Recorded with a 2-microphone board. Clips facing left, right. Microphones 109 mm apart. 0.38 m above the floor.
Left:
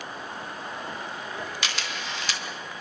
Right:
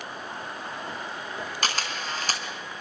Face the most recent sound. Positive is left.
turn(degrees=-45)  # may be behind; listen again after turning